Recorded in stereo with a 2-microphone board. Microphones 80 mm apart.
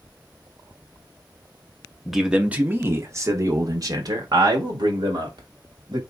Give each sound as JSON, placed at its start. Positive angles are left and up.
{"t": 2.0, "sound": "a man speaking", "side_deg": 0, "distance_m": 0.7}